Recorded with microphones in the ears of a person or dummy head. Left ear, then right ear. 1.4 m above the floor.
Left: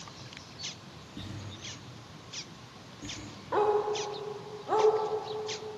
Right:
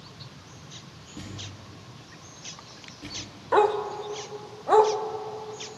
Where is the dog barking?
30° right (ahead or behind), 1.0 m.